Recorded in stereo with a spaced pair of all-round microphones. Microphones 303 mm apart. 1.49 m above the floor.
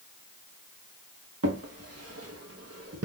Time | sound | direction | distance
1.4 | a drawer | 55° right (ahead or behind) | 0.9 m